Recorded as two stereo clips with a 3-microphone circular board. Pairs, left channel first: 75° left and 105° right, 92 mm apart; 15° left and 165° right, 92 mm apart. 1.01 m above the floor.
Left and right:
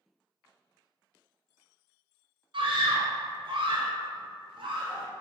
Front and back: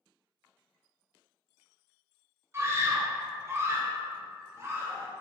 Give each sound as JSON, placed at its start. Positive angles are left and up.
{"t": 2.5, "sound": "a scream", "azimuth_deg": -110, "distance_m": 0.7}